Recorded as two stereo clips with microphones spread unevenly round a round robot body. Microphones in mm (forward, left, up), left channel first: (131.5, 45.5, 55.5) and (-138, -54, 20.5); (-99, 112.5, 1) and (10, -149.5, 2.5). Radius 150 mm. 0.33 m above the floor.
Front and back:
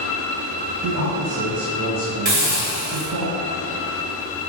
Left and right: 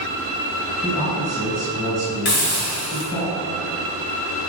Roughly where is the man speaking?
Behind.